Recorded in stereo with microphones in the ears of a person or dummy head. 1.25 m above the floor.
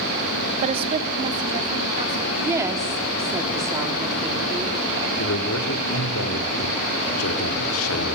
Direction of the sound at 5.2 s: 85° left.